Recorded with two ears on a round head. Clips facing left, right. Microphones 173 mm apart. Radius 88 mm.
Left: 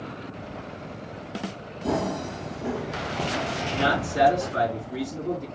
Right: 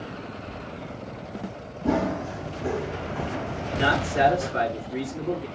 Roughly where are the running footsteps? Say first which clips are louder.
Right 2 dB; centre.